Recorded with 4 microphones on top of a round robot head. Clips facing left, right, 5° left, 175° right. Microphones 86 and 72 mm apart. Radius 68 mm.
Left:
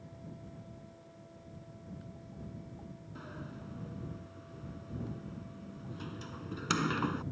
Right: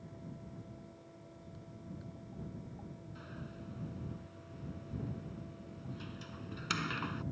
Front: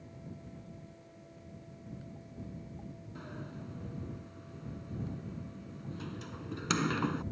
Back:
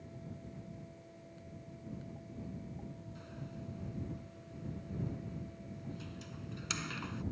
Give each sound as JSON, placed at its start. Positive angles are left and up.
{"t": 3.1, "sound": "a sliding door", "azimuth_deg": 35}